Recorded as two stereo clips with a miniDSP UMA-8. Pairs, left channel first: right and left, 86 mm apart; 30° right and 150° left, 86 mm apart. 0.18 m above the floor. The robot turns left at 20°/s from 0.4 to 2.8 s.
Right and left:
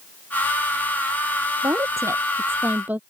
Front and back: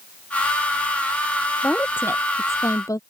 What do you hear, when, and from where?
1.6 s a woman speaking: 45° left; by 3.0 s 20° left